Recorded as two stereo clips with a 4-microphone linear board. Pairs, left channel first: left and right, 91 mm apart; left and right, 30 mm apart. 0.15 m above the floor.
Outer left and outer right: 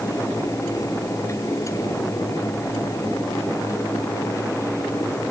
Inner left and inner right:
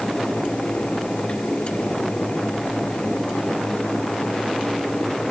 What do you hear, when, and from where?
Only background noise.